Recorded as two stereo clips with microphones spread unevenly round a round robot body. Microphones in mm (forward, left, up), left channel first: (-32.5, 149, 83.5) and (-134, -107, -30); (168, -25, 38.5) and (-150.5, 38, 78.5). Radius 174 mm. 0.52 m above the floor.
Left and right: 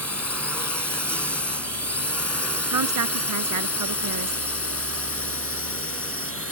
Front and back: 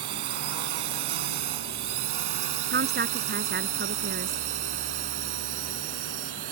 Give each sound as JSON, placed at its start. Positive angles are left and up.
{"t": 0.0, "sound": "a drone", "azimuth_deg": 160}
{"t": 2.7, "sound": "a woman speaking", "azimuth_deg": -130}